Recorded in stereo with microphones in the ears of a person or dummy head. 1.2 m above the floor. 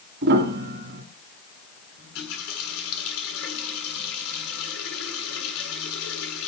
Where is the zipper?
No zipper in this recording.